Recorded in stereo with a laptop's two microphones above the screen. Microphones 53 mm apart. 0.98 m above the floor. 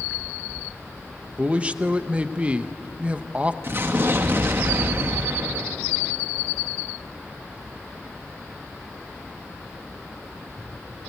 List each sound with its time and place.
1.4 s a man speaking: 25° right (ahead or behind), 0.8 m
3.6 s an explosion: 50° right (ahead or behind), 1.5 m